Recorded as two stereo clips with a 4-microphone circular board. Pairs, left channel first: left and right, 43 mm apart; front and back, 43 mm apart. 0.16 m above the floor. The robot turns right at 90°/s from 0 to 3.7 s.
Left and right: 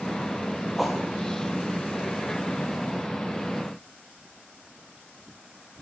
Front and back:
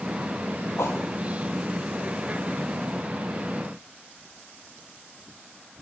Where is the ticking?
I don't hear ticking.